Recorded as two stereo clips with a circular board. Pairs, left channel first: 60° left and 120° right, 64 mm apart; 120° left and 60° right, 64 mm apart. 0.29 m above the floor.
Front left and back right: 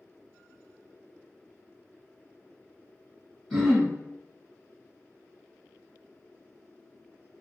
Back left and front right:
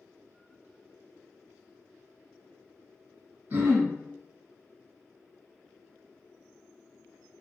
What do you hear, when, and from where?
3.5 s throat clearing: 30° right, 1.1 m